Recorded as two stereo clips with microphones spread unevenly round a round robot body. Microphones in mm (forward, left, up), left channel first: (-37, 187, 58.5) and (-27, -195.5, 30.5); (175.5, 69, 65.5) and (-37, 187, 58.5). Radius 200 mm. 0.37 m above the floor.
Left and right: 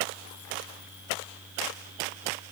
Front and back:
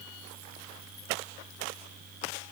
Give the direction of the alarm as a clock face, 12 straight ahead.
I don't hear an alarm.